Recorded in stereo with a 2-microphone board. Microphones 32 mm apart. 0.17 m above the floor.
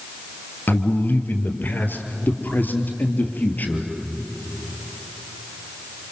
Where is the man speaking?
70° left (ahead or behind), 3 m; by 3.9 s 55° left (ahead or behind), 3.5 m.